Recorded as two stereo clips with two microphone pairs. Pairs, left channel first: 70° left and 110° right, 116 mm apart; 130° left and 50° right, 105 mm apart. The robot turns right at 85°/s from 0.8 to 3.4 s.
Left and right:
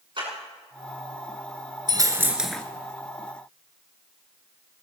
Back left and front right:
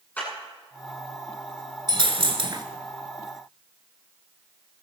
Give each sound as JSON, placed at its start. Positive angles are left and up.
{"t": 0.2, "sound": "a clap", "azimuth_deg": -155, "distance_m": 9.5}
{"t": 1.9, "sound": "a dropped coin", "azimuth_deg": -75, "distance_m": 1.5}